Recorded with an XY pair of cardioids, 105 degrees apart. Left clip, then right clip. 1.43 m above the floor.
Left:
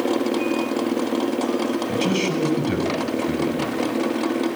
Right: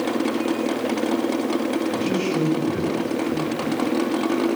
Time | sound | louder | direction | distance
1.9 | a man speaking | left 1 dB | 70° left | 8.5 m